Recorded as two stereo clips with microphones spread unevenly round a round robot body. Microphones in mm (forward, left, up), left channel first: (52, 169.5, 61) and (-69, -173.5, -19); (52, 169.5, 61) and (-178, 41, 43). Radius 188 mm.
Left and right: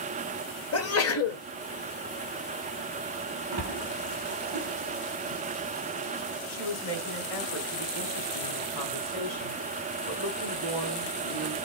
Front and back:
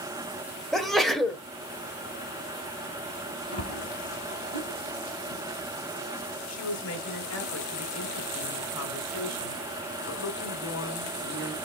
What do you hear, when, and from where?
0.7 s a sneeze: 120° left, 1.2 m
3.5 s a splash: 45° right, 3 m
6.5 s a woman speaking: 50° left, 2.5 m